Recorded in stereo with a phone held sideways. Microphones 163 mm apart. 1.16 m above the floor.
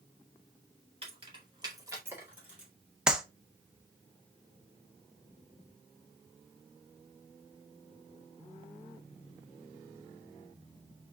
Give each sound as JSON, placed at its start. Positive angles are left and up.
{"t": 1.0, "sound": "keys jangling", "side_deg": -35, "distance_m": 1.9}
{"t": 3.1, "sound": "a clap", "side_deg": -5, "distance_m": 0.9}